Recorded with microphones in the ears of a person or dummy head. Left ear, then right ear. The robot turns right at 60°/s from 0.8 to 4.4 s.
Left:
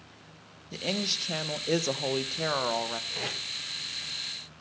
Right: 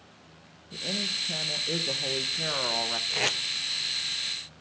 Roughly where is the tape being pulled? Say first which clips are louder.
Right 6 dB; right.